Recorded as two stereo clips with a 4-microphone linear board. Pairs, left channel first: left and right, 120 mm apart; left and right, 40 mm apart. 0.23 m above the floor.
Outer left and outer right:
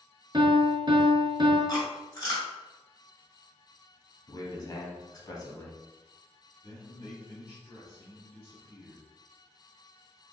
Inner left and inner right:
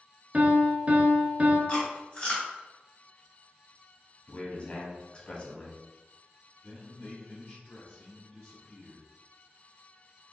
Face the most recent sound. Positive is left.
turn(degrees=30)  # may be behind; listen again after turning